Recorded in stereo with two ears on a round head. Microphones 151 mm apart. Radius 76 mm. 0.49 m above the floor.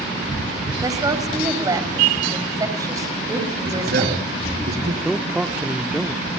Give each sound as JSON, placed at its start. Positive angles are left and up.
{"t": 0.8, "sound": "a woman speaking", "side_deg": -20, "distance_m": 3.0}
{"t": 3.6, "sound": "a man speaking", "side_deg": -60, "distance_m": 5.5}
{"t": 5.0, "sound": "a man speaking", "side_deg": -5, "distance_m": 0.8}